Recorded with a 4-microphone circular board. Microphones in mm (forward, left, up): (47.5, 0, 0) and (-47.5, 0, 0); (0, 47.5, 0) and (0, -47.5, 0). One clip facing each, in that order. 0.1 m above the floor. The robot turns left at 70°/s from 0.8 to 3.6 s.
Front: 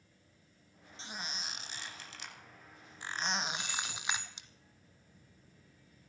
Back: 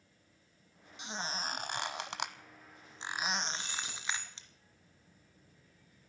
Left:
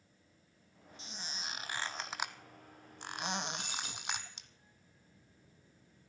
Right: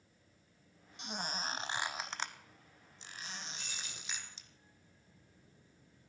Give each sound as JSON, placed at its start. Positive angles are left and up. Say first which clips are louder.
{"t": 1.0, "sound": "a squeak", "louder": "back 5 dB, right 7 dB", "azimuth_deg": -105, "distance_m": 0.9}
{"t": 3.6, "sound": "keys jangling", "louder": "front 2 dB, left 6 dB", "azimuth_deg": 125, "distance_m": 9.0}